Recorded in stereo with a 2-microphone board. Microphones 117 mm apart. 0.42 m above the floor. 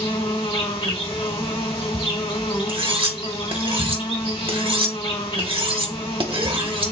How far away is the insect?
About 2 m.